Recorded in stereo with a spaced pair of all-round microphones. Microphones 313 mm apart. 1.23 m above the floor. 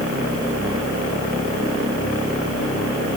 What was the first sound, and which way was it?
Only background noise.